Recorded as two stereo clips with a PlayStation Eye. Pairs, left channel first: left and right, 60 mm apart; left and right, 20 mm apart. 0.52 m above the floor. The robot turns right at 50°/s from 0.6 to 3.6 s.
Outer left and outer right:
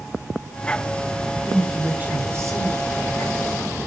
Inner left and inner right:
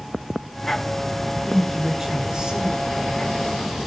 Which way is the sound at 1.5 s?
Straight behind.